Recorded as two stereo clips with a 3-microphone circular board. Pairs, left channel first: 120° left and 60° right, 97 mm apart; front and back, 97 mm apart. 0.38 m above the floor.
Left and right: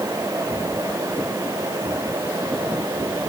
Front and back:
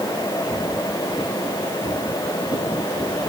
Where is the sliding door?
I don't hear a sliding door.